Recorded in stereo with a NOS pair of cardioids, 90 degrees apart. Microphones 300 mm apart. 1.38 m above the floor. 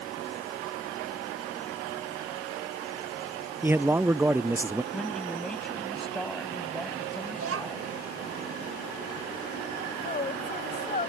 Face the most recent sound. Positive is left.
turn(degrees=25)